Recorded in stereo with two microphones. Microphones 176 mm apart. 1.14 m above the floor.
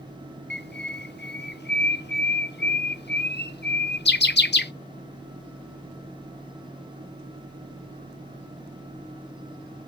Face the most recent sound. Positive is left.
turn(degrees=65)  # may be behind; listen again after turning